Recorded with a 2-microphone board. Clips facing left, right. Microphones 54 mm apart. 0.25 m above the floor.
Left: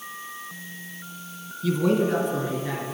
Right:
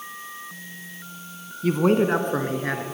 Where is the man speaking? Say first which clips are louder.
Right 3 dB; 40° right (ahead or behind), 2 m; by 2.8 s 55° right (ahead or behind), 3.5 m.